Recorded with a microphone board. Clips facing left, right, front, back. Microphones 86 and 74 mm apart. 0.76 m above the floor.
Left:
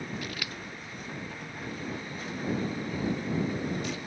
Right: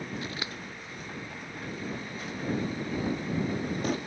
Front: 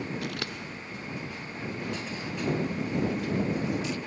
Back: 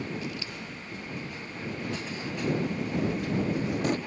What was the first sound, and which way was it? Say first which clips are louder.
Scissors: right 1 dB, front 2 dB; 25° right.